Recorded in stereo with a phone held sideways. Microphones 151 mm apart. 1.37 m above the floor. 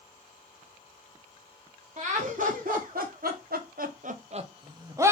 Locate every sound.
2.0 s laughter: 55° right (ahead or behind), 1.4 m; by 5.1 s 20° right (ahead or behind), 0.9 m